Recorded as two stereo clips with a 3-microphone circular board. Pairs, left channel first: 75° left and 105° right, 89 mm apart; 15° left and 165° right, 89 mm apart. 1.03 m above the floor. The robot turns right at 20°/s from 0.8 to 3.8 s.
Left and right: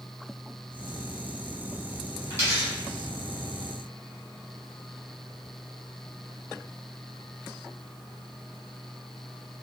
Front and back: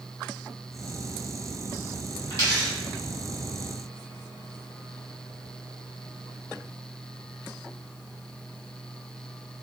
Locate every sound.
2.3 s a dropped coin: 45° right, 1.8 m; by 2.7 s 40° right, 1.8 m